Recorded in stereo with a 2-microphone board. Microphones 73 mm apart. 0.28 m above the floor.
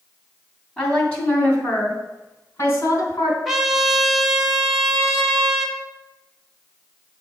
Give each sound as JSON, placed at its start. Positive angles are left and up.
{"t": 0.8, "sound": "a woman speaking", "side_deg": 10, "distance_m": 2.5}
{"t": 3.5, "sound": "a trumpet", "side_deg": -5, "distance_m": 1.0}